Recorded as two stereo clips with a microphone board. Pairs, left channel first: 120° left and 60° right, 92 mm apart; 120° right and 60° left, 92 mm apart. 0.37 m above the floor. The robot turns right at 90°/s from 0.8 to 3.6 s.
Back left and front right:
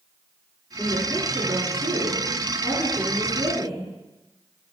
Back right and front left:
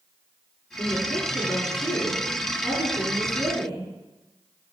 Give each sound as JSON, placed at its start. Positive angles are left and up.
{"t": 0.8, "sound": "a woman speaking", "azimuth_deg": -160, "distance_m": 3.5}